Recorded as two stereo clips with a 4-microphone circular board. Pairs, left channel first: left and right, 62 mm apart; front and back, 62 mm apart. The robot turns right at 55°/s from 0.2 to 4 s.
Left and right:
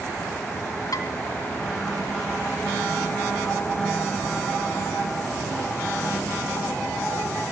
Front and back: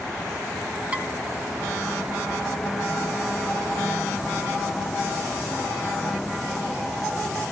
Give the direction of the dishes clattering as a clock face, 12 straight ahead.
8 o'clock.